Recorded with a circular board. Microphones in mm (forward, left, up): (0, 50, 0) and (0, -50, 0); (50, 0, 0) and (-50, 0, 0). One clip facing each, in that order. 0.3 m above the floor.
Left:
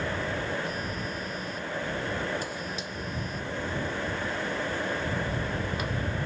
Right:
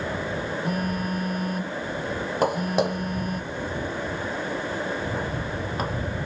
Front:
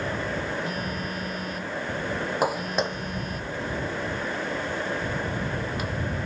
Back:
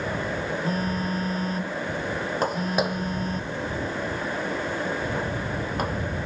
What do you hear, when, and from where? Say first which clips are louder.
0.6 s a phone buzzing: right 6 dB, back 4 dB; 125° right
2.4 s footsteps: right 13 dB, back 1 dB; 80° right; by 6.0 s 140° right